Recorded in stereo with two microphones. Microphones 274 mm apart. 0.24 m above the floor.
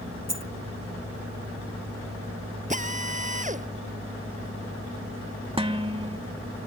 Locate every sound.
0.3 s a dropped coin: 65° left (ahead or behind)
2.7 s a drill: 25° right (ahead or behind)
5.6 s dishes clattering: 20° right (ahead or behind)